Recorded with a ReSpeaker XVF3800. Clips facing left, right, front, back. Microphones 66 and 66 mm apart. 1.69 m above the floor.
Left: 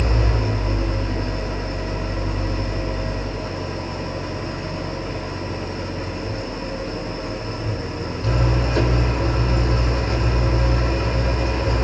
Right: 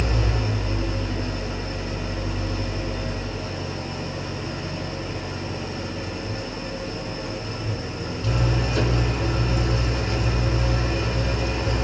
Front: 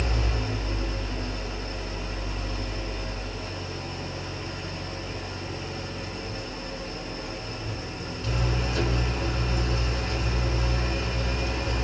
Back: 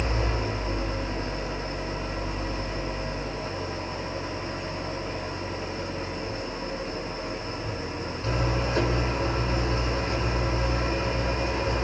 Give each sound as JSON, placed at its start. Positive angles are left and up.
{"t": 0.0, "sound": "an engine running", "azimuth_deg": 130, "distance_m": 3.0}